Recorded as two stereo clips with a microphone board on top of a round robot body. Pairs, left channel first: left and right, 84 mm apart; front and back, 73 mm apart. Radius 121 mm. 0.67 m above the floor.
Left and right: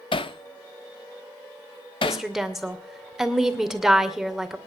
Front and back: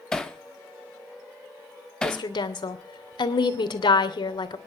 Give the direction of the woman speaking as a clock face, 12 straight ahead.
12 o'clock.